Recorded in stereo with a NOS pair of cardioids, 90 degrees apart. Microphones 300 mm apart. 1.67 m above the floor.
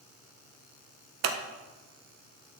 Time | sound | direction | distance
1.2 | scissors | 65° right | 0.8 m